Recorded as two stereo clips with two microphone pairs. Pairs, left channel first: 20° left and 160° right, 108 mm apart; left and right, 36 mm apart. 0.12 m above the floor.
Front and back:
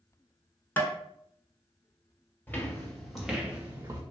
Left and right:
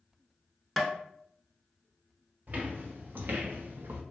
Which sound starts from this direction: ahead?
Tapping, at 0.8 s.